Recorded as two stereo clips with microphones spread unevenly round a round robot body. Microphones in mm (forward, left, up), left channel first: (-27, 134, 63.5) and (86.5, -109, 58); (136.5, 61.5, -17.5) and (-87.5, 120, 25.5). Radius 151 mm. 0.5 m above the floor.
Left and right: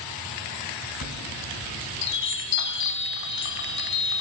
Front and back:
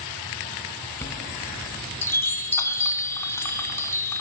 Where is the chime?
65° left, 1.6 m.